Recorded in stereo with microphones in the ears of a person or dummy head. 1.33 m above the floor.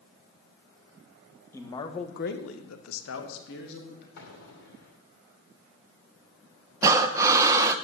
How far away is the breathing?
About 0.8 m.